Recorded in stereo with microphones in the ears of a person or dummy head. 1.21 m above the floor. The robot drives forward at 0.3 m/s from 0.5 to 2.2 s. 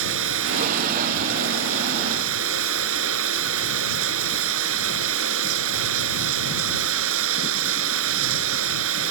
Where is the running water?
70° right (ahead or behind); by 9.1 s 75° right (ahead or behind).